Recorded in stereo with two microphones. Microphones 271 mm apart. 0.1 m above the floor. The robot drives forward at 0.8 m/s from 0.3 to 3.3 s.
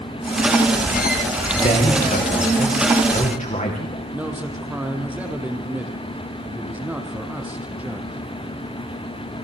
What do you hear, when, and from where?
1.6 s a man speaking: 35° left (ahead or behind), 7.5 m; by 4.0 s 30° left (ahead or behind), 8.5 m
4.1 s a man speaking: 5° right (ahead or behind), 4.5 m